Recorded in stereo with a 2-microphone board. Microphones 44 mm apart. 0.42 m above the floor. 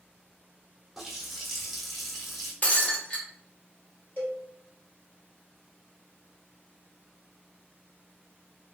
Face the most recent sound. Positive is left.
turn(degrees=45)  # may be behind; listen again after turning